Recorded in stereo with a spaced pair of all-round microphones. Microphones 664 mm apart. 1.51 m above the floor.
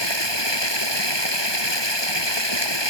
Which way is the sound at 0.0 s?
40° left (ahead or behind).